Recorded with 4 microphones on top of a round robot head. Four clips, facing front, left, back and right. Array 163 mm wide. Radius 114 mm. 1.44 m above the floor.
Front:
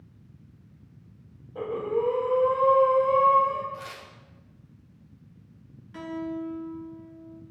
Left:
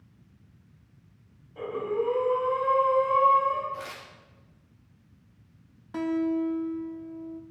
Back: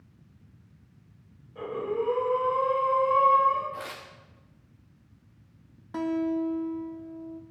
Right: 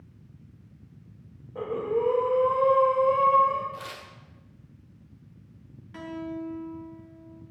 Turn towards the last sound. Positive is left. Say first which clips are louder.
# left 9 dB, back 6 dB
turn(degrees=140)